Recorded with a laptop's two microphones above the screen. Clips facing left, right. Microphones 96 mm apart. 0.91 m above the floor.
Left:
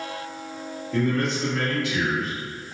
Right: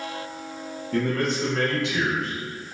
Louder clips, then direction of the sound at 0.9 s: Left 1 dB; 55° right (ahead or behind).